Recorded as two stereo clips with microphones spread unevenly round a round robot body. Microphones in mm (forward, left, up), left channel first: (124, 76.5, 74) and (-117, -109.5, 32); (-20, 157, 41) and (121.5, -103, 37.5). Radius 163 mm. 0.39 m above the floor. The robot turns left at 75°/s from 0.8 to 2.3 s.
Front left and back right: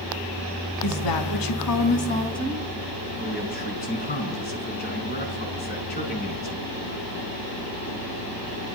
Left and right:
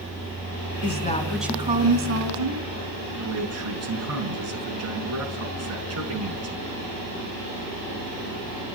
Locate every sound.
0.8 s a woman speaking: 70° left, 4 m; by 2.6 s 40° right, 4 m
3.2 s a man speaking: 25° right, 6 m